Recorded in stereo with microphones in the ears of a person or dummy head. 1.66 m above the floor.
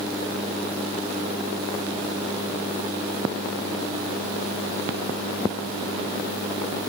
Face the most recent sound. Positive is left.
No sound to turn to.